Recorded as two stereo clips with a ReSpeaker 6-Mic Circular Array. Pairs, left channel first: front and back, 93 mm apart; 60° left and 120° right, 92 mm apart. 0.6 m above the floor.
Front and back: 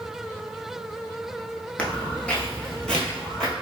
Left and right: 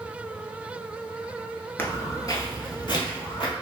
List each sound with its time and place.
1.8 s footsteps: 50° left, 0.5 m; by 3.5 s 80° left, 1.2 m